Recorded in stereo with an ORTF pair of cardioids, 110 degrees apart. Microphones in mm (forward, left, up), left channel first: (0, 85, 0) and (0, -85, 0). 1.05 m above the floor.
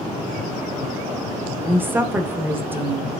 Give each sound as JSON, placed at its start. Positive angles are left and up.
{"t": 1.6, "sound": "a woman speaking", "azimuth_deg": -15, "distance_m": 0.8}